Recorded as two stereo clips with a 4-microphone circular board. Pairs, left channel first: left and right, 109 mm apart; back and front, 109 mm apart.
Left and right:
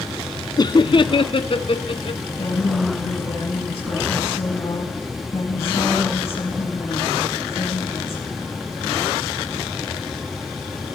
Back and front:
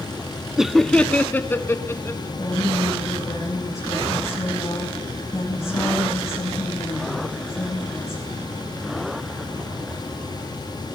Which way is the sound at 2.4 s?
125° left.